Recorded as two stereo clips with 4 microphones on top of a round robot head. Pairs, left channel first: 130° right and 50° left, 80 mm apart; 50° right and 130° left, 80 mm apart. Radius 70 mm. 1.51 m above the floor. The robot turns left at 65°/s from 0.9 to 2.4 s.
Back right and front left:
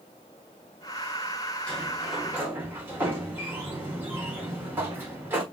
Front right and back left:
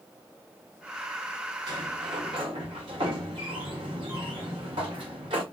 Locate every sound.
1.7 s a sliding door: 160° left, 1.3 m; by 5.4 s 110° left, 1.3 m